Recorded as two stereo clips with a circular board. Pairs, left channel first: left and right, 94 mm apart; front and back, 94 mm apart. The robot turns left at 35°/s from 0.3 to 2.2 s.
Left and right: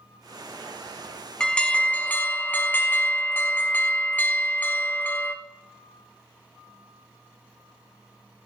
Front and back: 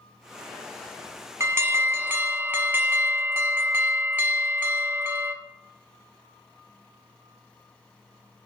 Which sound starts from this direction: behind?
An alarm, at 1.4 s.